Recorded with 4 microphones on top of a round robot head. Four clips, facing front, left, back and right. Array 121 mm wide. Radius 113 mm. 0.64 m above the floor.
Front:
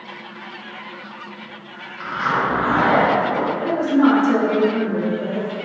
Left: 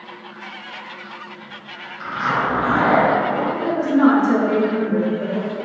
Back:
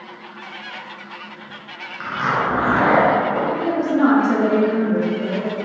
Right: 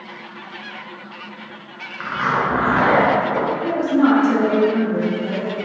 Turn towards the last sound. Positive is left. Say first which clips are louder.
# left 2 dB, front 2 dB
turn(degrees=100)